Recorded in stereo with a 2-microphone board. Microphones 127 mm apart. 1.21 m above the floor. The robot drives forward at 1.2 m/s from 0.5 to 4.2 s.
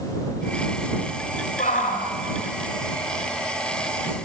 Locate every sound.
1.6 s a shout: 80° left, 5.5 m; by 2.0 s 75° left (ahead or behind), 5.5 m